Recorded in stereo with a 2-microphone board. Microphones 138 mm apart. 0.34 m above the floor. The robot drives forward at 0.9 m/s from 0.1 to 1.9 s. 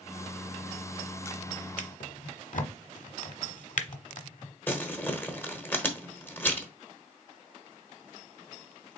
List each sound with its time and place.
1.8 s a drawer: 70° left (ahead or behind), 0.7 m; by 4.5 s 65° left (ahead or behind), 0.7 m
4.7 s crumpling: 15° left (ahead or behind), 1.0 m